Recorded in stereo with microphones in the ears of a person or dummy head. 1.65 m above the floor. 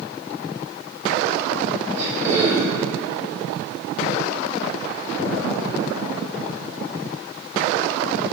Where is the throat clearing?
15° right (ahead or behind), 1.9 m.